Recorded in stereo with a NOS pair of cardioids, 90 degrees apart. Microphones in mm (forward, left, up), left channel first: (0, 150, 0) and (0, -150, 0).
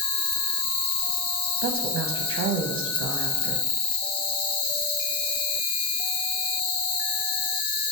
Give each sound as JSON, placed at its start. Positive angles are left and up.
{"t": 0.0, "sound": "an insect", "azimuth_deg": 60, "distance_m": 0.9}
{"t": 1.6, "sound": "a woman speaking", "azimuth_deg": -45, "distance_m": 0.5}